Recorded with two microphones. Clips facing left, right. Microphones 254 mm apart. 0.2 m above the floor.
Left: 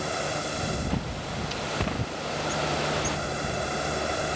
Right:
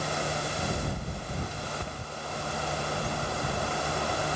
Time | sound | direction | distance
0.9 | a bird | 85° left | ?